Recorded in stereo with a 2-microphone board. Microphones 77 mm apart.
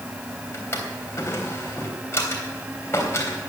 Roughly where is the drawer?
Left.